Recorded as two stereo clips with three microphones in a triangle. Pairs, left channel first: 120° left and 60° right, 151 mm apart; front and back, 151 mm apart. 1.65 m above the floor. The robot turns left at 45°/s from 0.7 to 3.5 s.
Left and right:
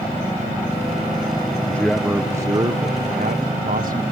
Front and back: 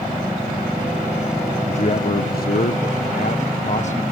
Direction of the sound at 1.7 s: 45° left.